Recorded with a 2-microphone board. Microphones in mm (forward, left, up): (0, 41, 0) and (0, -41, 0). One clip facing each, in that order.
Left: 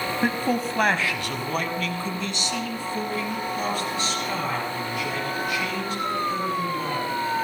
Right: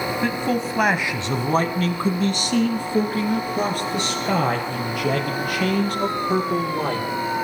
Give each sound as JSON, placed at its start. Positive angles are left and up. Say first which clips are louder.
{"t": 0.2, "sound": "a man speaking", "louder": "even", "side_deg": 20, "distance_m": 1.0}